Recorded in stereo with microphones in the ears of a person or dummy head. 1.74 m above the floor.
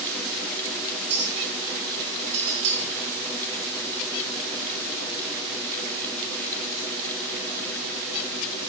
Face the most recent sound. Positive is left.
turn(degrees=-30)  # may be behind; listen again after turning